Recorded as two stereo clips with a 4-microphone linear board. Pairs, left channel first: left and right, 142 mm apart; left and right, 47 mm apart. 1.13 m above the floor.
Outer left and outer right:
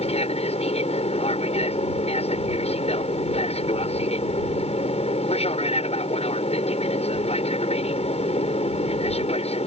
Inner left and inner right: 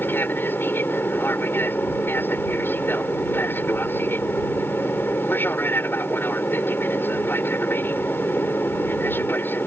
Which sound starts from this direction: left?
An aircraft, at 0.0 s.